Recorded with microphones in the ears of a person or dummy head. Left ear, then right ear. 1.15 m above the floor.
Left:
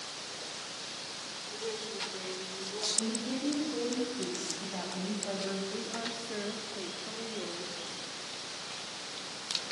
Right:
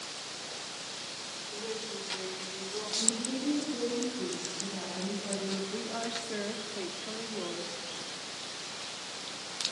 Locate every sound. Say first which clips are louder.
1.5 s a woman speaking: even; 15° left (ahead or behind), 5.5 m; by 2.9 s centre (ahead or behind), 4.5 m
3.0 s a woman speaking: right 2 dB; 65° left (ahead or behind), 8.5 m
5.7 s a woman speaking: right 2 dB; 15° right (ahead or behind), 2.5 m